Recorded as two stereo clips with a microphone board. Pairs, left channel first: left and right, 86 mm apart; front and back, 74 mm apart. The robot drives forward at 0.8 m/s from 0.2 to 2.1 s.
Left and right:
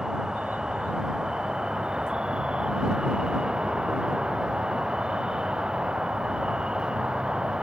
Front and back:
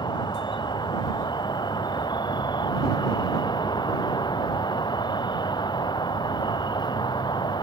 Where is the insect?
5° right; by 7.6 s 10° right.